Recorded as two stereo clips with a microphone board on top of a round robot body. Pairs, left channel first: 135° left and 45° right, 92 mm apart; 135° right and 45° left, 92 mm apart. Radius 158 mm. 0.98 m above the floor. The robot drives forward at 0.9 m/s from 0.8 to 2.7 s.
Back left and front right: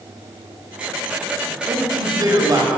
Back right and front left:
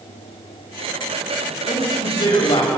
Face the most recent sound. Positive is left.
turn(degrees=-100)